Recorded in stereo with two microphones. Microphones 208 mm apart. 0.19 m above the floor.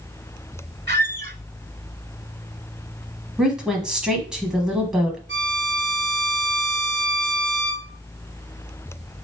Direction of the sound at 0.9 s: 55° right (ahead or behind).